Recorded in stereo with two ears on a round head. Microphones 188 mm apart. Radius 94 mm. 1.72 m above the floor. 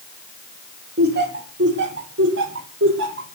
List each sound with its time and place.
1.0 s laughter: 50° right (ahead or behind), 3 m; by 3.3 s 65° right (ahead or behind), 4.5 m